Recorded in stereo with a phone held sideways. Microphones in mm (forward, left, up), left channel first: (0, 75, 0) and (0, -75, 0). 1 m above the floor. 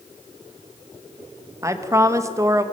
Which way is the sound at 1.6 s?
20° right (ahead or behind).